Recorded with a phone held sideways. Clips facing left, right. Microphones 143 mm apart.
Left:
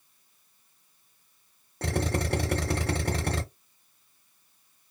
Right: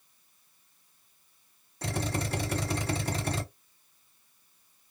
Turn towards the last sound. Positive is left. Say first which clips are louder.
# left 4 dB
turn(degrees=70)  # may be behind; listen again after turning